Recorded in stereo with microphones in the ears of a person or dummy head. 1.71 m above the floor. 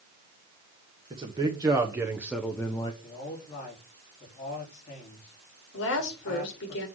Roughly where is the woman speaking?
Left.